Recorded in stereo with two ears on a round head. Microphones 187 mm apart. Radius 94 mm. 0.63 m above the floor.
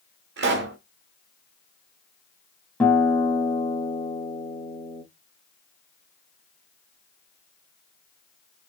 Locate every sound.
0.4 s a pop: 60° right (ahead or behind), 0.9 m
2.8 s a guitar: 5° left (ahead or behind), 1.0 m